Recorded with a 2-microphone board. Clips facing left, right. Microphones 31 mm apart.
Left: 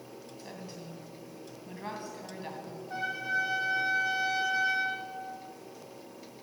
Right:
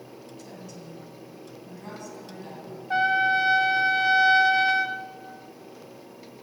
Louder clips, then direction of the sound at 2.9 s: Right 11 dB; 70° right (ahead or behind).